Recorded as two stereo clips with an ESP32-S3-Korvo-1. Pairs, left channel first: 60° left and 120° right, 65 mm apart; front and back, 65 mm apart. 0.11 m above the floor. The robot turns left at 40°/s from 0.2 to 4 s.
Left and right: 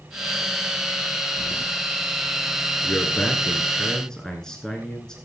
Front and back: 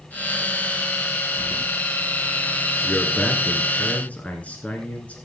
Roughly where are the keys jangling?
Left.